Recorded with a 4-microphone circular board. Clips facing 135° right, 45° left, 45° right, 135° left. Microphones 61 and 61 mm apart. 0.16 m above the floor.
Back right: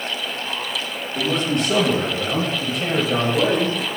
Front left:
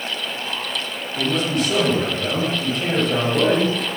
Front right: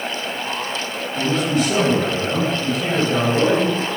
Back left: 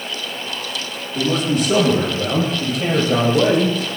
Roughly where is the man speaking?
Behind.